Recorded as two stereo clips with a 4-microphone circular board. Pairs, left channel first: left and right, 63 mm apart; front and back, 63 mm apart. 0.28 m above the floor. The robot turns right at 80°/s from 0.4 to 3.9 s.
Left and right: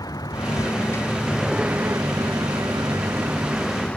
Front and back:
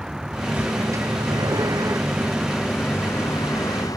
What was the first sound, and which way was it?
A vehicle, 100° left.